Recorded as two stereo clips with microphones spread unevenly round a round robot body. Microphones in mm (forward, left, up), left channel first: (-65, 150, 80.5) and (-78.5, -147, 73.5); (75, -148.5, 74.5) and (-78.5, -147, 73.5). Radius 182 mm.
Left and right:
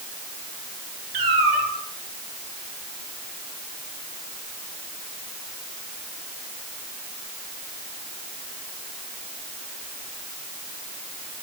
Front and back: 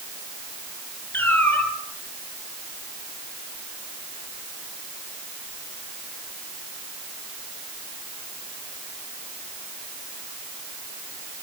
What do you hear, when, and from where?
1.1 s a cat meowing: 80° right, 4 m